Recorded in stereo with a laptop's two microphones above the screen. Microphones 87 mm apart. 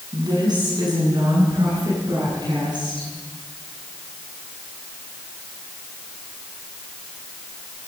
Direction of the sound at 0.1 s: 55° right (ahead or behind).